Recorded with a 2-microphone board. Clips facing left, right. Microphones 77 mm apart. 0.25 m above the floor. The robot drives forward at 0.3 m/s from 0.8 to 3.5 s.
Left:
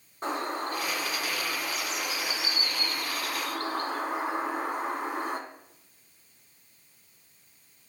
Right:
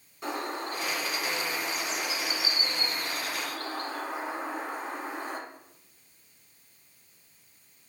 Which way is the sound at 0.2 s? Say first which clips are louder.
Left 2 dB; 45° left (ahead or behind).